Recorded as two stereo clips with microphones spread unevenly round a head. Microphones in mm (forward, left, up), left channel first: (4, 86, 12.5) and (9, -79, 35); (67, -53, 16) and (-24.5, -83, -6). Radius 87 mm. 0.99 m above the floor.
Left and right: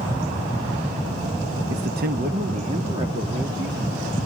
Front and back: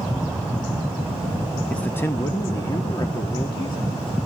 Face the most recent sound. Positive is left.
turn(degrees=-15)